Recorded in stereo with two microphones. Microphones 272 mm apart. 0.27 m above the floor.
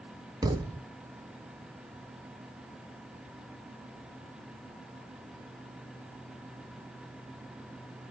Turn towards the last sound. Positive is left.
turn(degrees=-15)  # may be behind; listen again after turning